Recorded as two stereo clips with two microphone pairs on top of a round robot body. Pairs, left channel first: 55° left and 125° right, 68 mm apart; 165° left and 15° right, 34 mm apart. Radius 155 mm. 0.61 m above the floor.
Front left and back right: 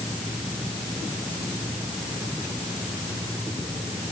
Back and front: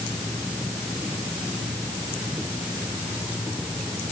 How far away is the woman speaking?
No woman speaking in this recording.